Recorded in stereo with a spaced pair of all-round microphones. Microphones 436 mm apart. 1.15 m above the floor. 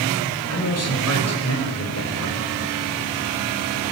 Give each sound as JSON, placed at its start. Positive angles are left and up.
{"t": 0.5, "sound": "a man speaking", "side_deg": 35, "distance_m": 7.0}